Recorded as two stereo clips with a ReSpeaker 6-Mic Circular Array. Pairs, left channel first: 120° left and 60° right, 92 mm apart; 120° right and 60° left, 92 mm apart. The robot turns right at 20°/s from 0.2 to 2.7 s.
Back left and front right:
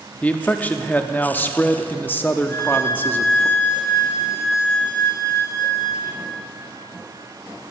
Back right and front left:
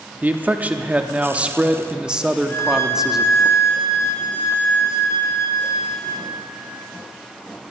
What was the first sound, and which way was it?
A man speaking, 80° left.